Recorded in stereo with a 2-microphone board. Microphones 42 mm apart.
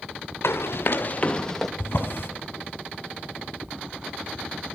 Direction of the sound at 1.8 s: 55° left (ahead or behind).